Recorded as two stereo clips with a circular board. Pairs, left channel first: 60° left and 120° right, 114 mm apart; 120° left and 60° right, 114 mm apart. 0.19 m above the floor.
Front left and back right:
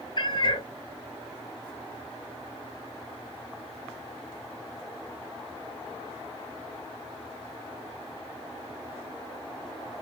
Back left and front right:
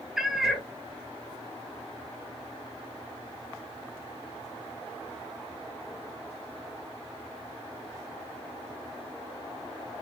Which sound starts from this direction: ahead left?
A cat meowing, at 0.2 s.